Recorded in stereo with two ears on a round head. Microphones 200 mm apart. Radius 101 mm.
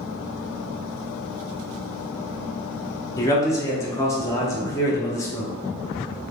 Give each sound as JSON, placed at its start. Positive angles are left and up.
{"t": 3.2, "sound": "a man speaking", "side_deg": 15, "distance_m": 0.7}